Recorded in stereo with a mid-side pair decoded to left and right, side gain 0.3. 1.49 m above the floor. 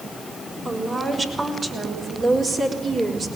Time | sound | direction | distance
0.7 | a woman speaking | 50° right | 6 m